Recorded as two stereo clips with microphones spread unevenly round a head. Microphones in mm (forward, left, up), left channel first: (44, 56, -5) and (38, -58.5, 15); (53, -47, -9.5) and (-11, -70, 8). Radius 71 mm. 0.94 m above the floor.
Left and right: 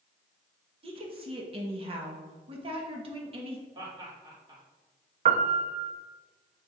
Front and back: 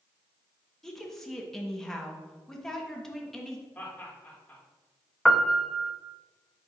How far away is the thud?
No thud in this recording.